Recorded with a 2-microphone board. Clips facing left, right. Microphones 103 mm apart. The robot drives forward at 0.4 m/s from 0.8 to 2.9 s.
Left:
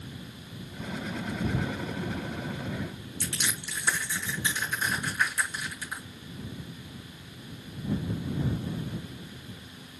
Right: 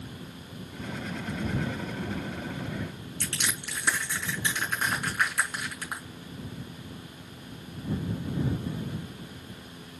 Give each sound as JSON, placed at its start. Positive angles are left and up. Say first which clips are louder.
{"t": 3.2, "sound": "crushing", "louder": "even", "side_deg": -70, "distance_m": 6.0}